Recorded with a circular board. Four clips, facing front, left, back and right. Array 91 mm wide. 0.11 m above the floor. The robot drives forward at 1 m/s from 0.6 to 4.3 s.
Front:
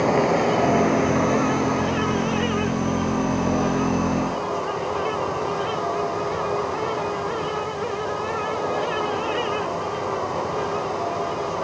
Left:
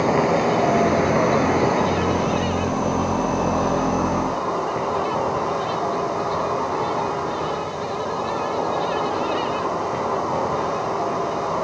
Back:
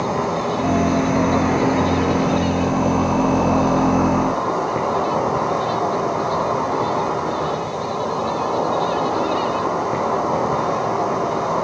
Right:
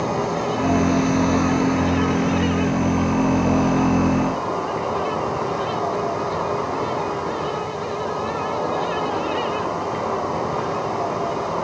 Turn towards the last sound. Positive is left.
turn(degrees=165)